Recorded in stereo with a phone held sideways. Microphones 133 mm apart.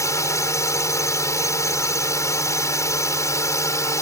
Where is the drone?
25° left (ahead or behind).